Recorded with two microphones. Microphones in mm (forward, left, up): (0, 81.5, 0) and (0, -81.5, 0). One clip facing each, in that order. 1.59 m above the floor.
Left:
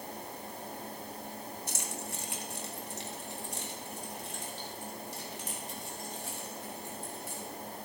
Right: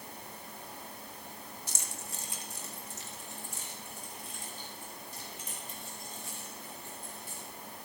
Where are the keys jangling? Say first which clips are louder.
Left 5 dB; 60° left (ahead or behind), 1.2 m; by 7.4 s 80° left, 4.5 m.